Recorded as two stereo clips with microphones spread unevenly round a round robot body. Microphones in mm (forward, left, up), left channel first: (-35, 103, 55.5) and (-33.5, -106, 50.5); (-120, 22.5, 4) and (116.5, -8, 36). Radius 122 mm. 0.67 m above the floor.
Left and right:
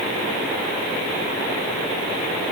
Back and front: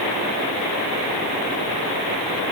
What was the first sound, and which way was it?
Only background noise.